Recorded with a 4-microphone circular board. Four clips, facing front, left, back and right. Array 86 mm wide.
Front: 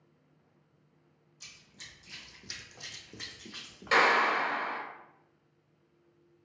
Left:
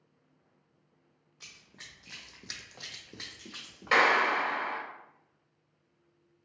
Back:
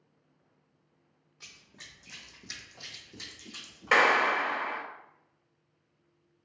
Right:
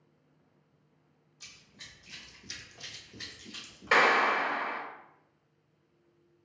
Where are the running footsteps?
130° left, 1.1 m; by 4.0 s 40° left, 1.1 m.